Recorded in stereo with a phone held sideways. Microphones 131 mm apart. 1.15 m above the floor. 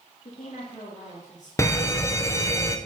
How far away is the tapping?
I don't hear tapping.